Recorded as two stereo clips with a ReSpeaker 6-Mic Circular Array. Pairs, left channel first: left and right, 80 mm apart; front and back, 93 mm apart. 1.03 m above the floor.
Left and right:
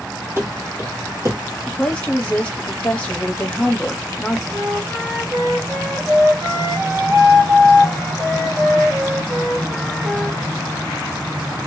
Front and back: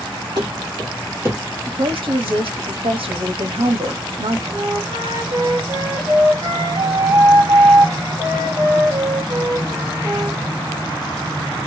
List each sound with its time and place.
0.4 s running footsteps: 140° right, 1.9 m; by 1.4 s 120° right, 1.4 m
1.7 s a woman speaking: 165° left, 1.1 m
4.5 s a flute: 140° right, 1.6 m